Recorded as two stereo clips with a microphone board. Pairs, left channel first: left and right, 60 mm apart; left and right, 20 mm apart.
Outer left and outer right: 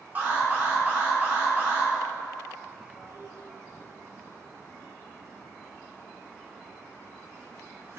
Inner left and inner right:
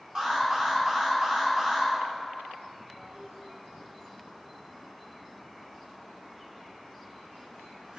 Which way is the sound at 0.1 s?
30° right (ahead or behind).